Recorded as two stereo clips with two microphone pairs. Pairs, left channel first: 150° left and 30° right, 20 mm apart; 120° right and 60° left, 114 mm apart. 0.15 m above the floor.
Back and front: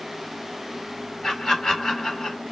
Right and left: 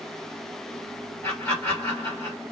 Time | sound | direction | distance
1.2 | laughter | straight behind | 2 m